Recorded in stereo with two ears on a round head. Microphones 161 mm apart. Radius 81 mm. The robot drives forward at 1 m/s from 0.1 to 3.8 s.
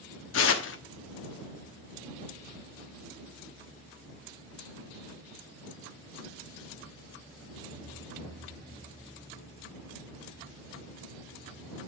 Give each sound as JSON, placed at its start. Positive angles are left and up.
{"t": 0.3, "sound": "tearing paper", "side_deg": 80, "distance_m": 1.1}